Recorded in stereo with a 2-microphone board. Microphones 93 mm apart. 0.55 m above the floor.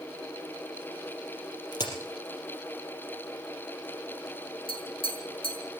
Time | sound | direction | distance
1.7 | a crack | 50° left (ahead or behind) | 4 m
4.7 | tapping | 75° left (ahead or behind) | 7.5 m